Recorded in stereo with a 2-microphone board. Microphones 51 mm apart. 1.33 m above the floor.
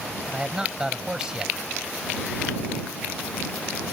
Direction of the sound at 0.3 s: 15° right (ahead or behind).